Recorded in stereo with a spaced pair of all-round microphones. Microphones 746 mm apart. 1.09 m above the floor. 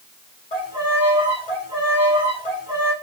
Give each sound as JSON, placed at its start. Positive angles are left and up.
{"t": 0.5, "sound": "a violin", "side_deg": 60, "distance_m": 6.5}